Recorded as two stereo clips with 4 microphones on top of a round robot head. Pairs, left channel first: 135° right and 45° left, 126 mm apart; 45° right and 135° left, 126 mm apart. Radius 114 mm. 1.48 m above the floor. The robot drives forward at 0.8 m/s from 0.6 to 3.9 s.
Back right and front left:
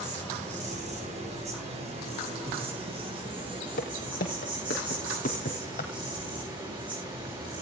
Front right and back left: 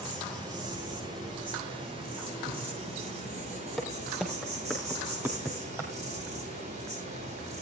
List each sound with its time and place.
0.0 s an insect: 75° left, 7 m; by 7.6 s 100° left, 6.5 m
3.8 s footsteps: 140° right, 3.5 m; by 5.9 s 155° right, 2.5 m